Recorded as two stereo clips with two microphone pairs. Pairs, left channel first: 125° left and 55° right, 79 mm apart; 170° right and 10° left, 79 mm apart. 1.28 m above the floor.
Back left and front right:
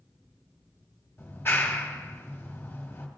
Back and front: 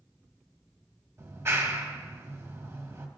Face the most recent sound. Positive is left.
turn(degrees=65)